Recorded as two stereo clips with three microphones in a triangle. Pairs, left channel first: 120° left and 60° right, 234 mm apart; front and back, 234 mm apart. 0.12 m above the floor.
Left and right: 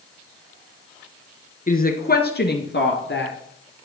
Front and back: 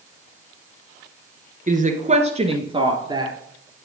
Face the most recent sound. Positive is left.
turn(degrees=110)